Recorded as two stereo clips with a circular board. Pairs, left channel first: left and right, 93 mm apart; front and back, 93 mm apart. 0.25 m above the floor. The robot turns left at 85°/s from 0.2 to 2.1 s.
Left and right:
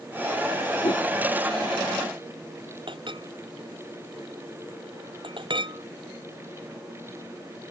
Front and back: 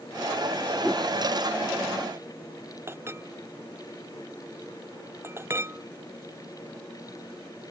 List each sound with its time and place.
0.8 s a whoosh: 85° left; by 1.1 s 65° left
2.9 s a clink: 115° right